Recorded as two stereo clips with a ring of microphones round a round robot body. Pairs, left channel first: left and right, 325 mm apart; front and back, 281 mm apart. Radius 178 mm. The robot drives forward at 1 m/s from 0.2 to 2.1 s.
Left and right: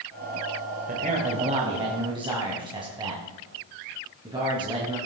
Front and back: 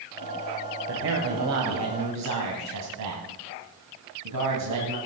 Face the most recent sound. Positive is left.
turn(degrees=-165)